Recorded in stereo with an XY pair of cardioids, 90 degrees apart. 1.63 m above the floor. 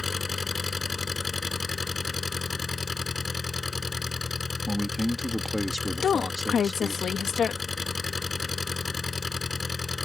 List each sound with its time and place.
0.0 s an engine running: 30° left
4.7 s a man speaking: 5° left
6.0 s a woman speaking: 60° left